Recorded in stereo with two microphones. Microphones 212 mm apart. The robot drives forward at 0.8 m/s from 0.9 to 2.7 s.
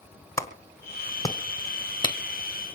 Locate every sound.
0.4 s a clap: 15° left (ahead or behind), 1.5 m; by 2.2 s 20° left (ahead or behind), 1.1 m